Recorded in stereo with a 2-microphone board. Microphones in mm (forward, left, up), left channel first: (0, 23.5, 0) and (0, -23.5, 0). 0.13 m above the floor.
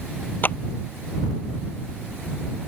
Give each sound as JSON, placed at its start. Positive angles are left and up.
{"t": 0.4, "sound": "a clap", "side_deg": 45}